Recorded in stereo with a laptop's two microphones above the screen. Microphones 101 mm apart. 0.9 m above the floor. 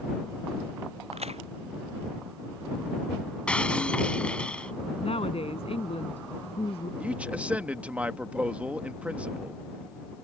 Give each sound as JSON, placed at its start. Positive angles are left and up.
{"t": 1.1, "sound": "a crack", "side_deg": -85}
{"t": 3.5, "sound": "breaking glass", "side_deg": 10}
{"t": 5.0, "sound": "a woman speaking", "side_deg": 70}
{"t": 7.0, "sound": "a man speaking", "side_deg": -15}